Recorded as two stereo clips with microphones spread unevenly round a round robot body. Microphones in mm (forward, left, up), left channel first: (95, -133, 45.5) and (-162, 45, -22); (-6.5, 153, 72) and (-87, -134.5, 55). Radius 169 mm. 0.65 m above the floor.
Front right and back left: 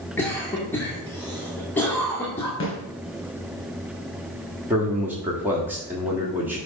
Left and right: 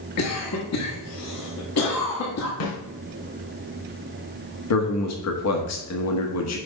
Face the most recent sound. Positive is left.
turn(degrees=75)